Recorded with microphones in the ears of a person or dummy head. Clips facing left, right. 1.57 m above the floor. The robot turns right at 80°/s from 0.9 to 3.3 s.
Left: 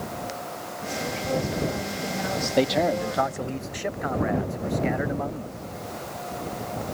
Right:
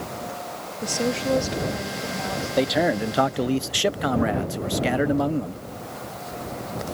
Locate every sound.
0.8 s a woman speaking: 85° right; by 3.6 s 105° left
2.6 s a man speaking: 170° left; by 5.6 s 130° right